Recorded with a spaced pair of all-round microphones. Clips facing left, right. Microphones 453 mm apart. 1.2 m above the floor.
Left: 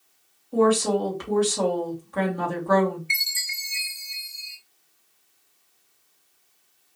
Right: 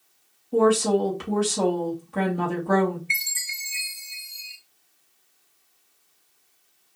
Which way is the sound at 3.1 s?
60° left (ahead or behind).